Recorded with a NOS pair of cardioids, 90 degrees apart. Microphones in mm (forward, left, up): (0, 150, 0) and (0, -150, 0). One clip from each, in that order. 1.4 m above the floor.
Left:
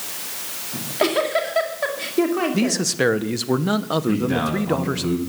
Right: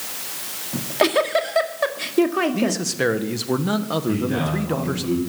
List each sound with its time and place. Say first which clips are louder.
0.7 s a giggle: right 2 dB; 35° right, 2.0 m
2.5 s a man speaking: left 1 dB; 25° left, 1.2 m
4.1 s a man speaking: left 2 dB; 50° left, 7 m